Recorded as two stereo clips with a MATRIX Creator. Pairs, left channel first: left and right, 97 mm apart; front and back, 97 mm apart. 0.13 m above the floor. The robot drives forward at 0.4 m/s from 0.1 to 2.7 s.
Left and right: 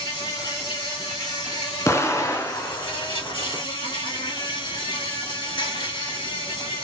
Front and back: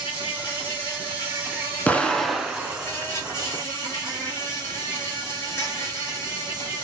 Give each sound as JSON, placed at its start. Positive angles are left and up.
{"t": 0.0, "sound": "an insect", "azimuth_deg": 45, "distance_m": 3.0}
{"t": 1.9, "sound": "an explosion", "azimuth_deg": 60, "distance_m": 0.7}